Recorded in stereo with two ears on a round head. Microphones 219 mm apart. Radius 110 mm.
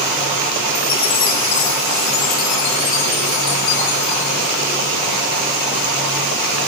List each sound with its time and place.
0.8 s a chime: 80° left, 3.5 m